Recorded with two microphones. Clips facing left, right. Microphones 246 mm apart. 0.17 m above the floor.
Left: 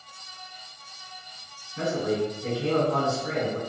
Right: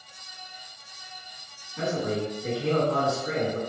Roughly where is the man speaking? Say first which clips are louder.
Left 2 dB; left.